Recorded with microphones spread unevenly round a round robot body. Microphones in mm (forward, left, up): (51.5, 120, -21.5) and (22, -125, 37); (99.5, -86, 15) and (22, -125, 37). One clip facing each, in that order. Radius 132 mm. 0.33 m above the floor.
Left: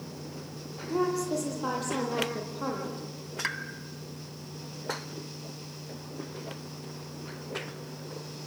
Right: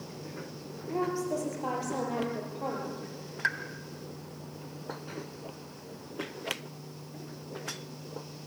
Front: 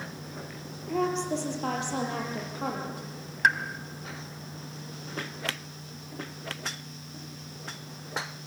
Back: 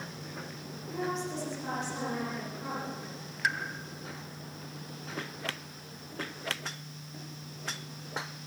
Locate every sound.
0.9 s a woman speaking: 15° left, 8 m
3.4 s a pop: 15° left, 1.8 m